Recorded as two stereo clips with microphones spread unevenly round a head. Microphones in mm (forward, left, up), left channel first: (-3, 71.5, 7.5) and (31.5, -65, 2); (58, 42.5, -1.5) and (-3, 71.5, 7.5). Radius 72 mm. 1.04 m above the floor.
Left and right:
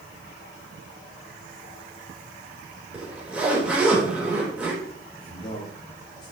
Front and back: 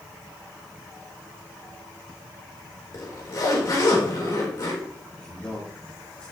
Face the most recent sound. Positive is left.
turn(degrees=35)